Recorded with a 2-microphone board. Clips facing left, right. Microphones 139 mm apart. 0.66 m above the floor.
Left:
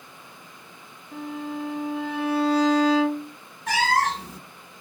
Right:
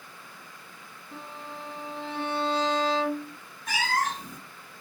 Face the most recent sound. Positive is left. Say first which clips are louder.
# left 6 dB
turn(degrees=75)  # may be behind; listen again after turning